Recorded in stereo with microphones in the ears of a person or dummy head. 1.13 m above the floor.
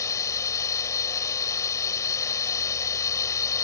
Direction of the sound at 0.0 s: 15° left (ahead or behind).